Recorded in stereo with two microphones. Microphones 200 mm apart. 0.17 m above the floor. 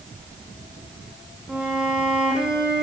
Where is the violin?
5° right (ahead or behind), 2.5 m.